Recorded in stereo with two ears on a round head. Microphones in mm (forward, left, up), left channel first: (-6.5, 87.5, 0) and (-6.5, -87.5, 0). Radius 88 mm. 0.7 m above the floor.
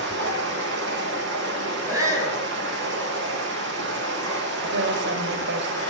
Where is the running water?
65° right (ahead or behind), 10 m.